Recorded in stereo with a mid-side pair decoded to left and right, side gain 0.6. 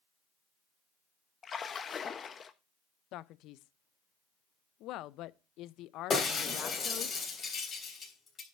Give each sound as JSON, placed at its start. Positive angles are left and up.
{"t": 1.4, "sound": "a splash", "azimuth_deg": 35, "distance_m": 1.0}
{"t": 3.1, "sound": "a man speaking", "azimuth_deg": 65, "distance_m": 0.5}
{"t": 6.1, "sound": "breaking glass", "azimuth_deg": 35, "distance_m": 3.5}